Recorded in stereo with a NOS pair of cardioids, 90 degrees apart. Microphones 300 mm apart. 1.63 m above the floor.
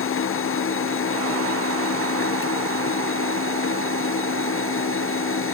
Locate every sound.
0.0 s a machine running: 45° left